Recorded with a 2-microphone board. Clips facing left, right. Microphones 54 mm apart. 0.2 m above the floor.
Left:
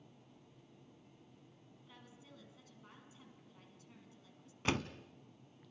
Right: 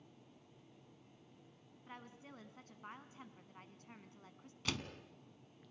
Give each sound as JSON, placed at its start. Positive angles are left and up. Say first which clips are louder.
{"t": 1.9, "sound": "a woman speaking", "louder": "right 6 dB", "side_deg": -45, "distance_m": 1.4}
{"t": 4.7, "sound": "a door slam", "louder": "left 6 dB", "side_deg": 35, "distance_m": 0.9}